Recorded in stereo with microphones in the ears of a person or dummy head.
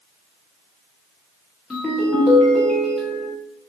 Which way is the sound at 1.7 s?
5° right (ahead or behind).